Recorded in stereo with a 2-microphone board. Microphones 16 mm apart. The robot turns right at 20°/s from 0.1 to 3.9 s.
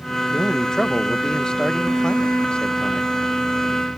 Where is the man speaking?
35° left; by 3.1 s 90° left.